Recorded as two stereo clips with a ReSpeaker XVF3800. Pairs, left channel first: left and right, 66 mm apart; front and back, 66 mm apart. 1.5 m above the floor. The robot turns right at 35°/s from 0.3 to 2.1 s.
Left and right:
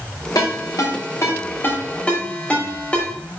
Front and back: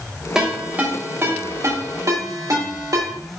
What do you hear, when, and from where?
0.3 s a ringtone: 100° left, 3 m; by 3.1 s 160° left, 3 m